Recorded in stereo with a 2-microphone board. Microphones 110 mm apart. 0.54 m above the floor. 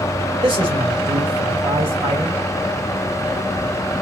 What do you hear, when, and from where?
0.4 s a man speaking: 50° right (ahead or behind), 2.5 m